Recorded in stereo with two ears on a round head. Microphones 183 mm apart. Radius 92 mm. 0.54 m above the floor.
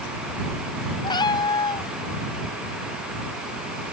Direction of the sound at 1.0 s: 20° left (ahead or behind).